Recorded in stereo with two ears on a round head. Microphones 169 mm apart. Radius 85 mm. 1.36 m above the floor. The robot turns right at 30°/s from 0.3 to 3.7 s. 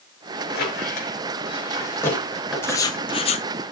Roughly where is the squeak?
Left.